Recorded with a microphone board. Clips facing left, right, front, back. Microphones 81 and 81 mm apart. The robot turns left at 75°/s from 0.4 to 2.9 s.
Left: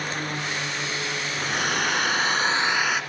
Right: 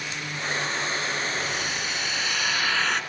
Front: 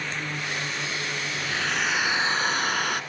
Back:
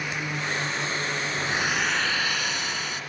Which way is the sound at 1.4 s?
125° left.